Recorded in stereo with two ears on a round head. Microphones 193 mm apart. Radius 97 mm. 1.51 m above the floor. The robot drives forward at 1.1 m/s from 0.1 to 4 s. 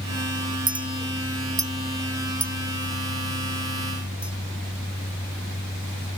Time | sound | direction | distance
0.7 | a clink | 20° right (ahead or behind) | ?